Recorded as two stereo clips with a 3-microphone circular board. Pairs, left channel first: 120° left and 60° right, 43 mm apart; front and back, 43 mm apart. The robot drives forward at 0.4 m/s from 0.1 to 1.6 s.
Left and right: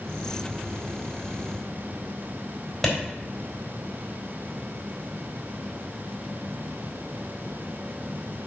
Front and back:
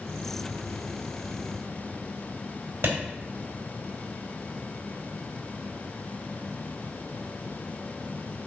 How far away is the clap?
About 3.5 m.